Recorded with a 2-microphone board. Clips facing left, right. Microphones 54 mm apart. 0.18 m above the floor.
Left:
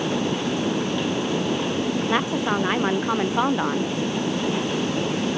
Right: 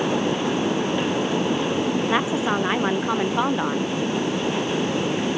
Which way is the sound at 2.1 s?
5° right (ahead or behind).